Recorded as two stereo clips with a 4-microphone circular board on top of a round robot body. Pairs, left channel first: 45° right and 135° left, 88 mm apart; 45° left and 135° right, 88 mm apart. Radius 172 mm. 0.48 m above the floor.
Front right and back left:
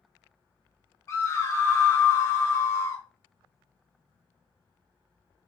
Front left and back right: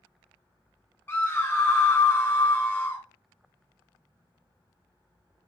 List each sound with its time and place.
1.1 s a scream: 5° right, 1.4 m